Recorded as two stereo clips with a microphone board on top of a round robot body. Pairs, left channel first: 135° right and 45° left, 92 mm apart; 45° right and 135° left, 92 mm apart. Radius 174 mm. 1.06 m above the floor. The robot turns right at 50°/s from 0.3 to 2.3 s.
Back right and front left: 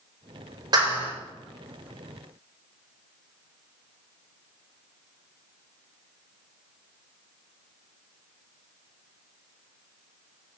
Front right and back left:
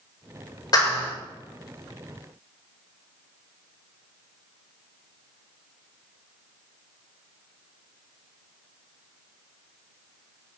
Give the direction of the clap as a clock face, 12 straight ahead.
12 o'clock.